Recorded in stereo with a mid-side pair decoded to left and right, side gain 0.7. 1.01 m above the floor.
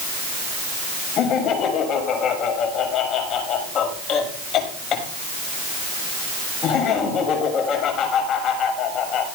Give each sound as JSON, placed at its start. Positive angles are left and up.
{"t": 1.2, "sound": "laughter", "azimuth_deg": 45, "distance_m": 7.0}